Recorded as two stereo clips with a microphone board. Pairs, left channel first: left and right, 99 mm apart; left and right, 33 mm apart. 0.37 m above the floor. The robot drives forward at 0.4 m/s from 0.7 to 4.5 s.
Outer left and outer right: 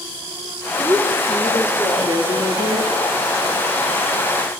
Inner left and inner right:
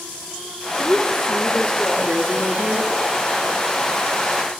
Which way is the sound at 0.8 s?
60° right (ahead or behind).